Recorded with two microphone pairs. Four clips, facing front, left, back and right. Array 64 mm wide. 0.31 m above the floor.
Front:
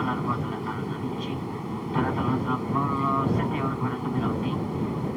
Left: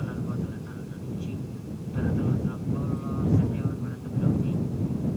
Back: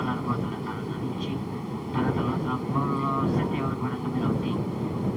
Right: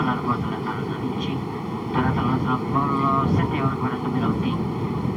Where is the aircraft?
85° right.